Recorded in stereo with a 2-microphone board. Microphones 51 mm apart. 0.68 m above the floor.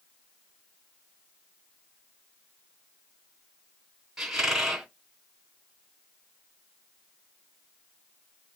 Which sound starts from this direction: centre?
A squeak, at 4.2 s.